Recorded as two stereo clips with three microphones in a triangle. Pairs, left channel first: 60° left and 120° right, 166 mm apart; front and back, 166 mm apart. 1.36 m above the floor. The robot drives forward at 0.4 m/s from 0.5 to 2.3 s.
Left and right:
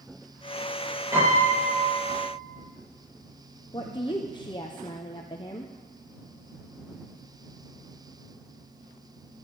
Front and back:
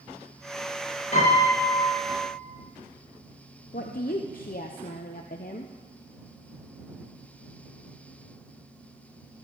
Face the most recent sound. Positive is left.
turn(degrees=5)